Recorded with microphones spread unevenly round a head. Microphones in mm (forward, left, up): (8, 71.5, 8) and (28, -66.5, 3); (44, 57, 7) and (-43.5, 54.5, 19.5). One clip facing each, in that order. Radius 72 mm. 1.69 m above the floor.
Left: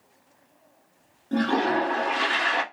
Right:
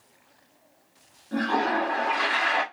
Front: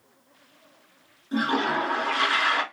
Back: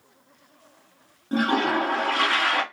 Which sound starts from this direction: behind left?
A toilet flushing, at 1.3 s.